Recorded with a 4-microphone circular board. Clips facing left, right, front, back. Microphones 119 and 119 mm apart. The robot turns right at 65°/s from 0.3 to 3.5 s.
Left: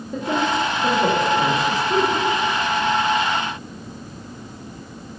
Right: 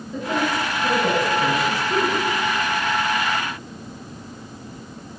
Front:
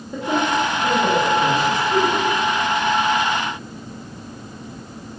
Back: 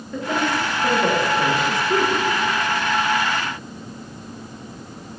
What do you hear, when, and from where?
0.1 s a woman speaking: 70° left, 2.5 m; by 2.2 s 170° right, 2.5 m